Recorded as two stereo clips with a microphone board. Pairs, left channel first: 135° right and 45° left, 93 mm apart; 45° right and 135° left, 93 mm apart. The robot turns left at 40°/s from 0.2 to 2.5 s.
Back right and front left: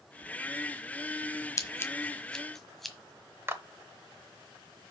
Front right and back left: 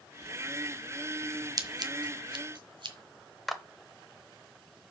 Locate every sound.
1.6 s scissors: 175° left, 1.3 m; by 3.0 s 135° left, 1.3 m
3.5 s a clap: 40° left, 0.9 m